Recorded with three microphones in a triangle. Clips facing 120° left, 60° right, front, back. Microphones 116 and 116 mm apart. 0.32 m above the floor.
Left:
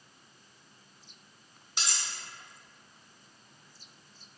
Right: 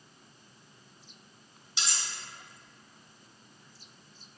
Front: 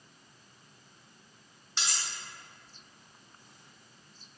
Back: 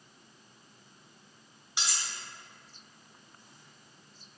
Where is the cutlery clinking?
110° left, 1.0 m.